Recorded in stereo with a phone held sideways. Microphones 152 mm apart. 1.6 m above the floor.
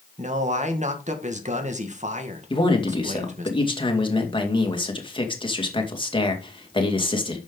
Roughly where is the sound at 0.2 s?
Right.